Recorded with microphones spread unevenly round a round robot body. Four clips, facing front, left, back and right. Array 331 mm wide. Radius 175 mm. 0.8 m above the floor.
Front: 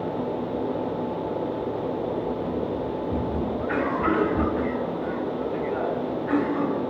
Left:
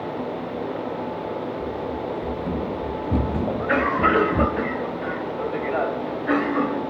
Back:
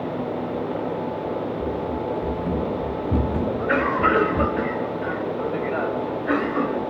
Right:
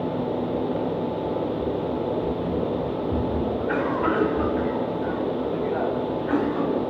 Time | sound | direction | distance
1.6 | running footsteps | 165° left | 1.7 m
3.5 | a cough | 135° left | 4 m